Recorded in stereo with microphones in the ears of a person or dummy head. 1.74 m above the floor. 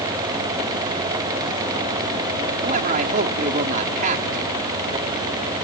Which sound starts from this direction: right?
A man speaking, at 2.6 s.